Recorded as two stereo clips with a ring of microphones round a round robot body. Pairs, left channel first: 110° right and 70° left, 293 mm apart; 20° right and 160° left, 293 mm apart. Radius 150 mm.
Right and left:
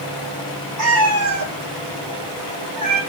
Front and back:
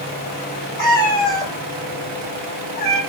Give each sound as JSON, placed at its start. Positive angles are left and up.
{"t": 0.8, "sound": "a cat meowing", "azimuth_deg": 35, "distance_m": 4.5}